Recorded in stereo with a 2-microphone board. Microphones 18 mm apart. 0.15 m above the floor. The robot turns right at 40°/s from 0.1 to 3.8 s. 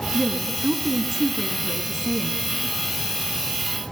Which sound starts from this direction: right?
A woman speaking, at 0.1 s.